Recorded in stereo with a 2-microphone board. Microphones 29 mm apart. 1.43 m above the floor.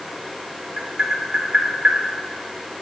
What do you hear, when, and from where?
0.8 s tapping: 30° right (ahead or behind), 1.9 m